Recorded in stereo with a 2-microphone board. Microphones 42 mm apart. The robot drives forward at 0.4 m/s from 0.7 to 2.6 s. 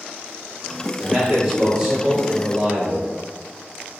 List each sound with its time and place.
1.0 s a man speaking: 25° right (ahead or behind), 1.1 m